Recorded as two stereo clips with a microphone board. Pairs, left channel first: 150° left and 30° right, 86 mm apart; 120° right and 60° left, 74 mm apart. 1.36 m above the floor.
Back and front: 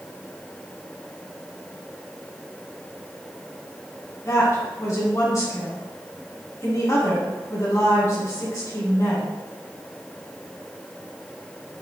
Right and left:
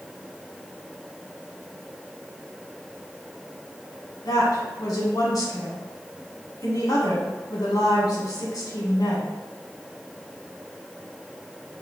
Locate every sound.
4.2 s a woman speaking: 160° right, 1.5 m